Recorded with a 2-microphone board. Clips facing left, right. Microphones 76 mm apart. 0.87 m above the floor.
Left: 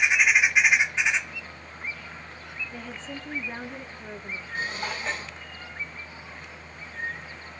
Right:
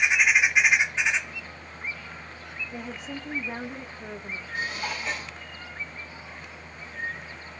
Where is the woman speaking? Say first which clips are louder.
Right 2 dB; 10° right (ahead or behind), 1.3 m.